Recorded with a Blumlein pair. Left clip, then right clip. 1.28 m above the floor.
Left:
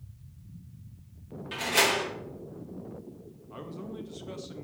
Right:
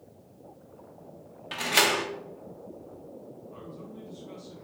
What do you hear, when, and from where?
1.5 s a door slam: 20° right, 2 m
3.5 s a man speaking: 65° left, 1.8 m